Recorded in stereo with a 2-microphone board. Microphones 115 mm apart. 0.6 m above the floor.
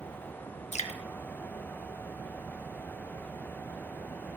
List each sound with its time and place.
0.7 s dripping: 80° left, 0.5 m